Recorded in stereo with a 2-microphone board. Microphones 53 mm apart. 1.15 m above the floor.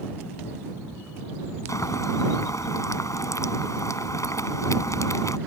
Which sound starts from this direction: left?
Boiling, at 1.7 s.